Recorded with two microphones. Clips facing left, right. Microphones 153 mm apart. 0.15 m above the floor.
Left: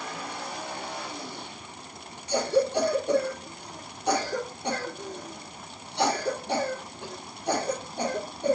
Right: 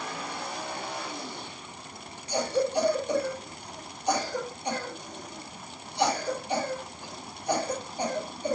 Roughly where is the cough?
Left.